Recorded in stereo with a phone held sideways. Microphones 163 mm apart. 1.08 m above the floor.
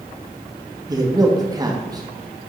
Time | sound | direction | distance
0.9 | a man speaking | 25° right (ahead or behind) | 1.5 m